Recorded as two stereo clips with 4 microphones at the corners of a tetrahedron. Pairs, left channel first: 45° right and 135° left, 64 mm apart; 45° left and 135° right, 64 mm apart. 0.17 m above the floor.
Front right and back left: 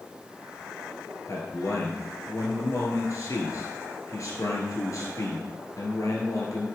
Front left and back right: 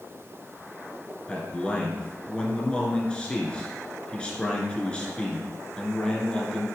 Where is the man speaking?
25° right, 2.5 m.